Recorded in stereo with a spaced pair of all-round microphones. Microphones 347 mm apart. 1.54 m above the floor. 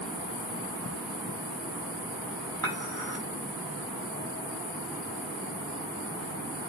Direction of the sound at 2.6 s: 10° left (ahead or behind).